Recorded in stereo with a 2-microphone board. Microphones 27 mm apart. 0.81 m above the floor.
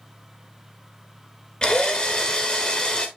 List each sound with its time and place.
1.6 s a drill: 25° left (ahead or behind), 1.9 m